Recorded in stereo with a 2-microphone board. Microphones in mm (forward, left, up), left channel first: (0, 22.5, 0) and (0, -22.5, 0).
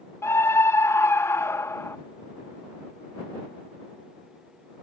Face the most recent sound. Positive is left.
turn(degrees=80)